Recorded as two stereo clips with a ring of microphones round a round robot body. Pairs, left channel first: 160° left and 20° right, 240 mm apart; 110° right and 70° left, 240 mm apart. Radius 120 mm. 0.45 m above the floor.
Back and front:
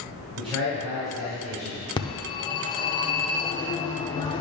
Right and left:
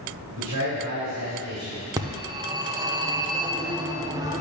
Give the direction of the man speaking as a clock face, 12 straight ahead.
11 o'clock.